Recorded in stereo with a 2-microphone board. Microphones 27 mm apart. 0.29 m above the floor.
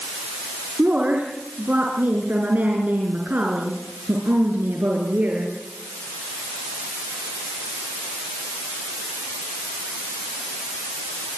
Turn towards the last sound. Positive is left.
turn(degrees=-70)  # may be behind; listen again after turning